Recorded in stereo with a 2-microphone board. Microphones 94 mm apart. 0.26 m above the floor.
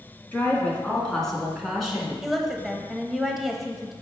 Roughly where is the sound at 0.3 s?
Centre.